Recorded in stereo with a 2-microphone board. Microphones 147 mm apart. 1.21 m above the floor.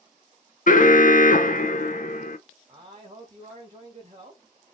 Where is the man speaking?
40° right (ahead or behind), 1.8 m.